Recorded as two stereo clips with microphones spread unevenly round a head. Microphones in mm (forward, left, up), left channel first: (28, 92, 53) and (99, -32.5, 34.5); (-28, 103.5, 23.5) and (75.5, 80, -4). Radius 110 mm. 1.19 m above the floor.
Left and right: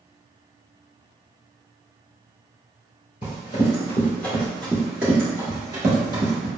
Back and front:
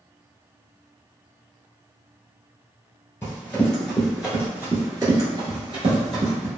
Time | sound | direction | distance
3.2 | running footsteps | 135° left | 1.4 m